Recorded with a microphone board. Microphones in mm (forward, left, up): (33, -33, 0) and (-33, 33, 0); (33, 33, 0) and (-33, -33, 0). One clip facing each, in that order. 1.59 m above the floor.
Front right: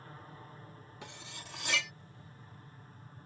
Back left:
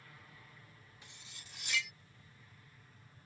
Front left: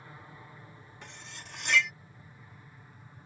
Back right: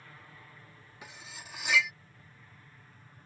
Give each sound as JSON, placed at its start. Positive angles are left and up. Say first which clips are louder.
{"t": 0.0, "sound": "an aircraft", "louder": "front right 8 dB, front left 4 dB", "azimuth_deg": -20}
{"t": 1.0, "sound": "cutlery clinking", "louder": "front right 13 dB, back right 1 dB", "azimuth_deg": -50}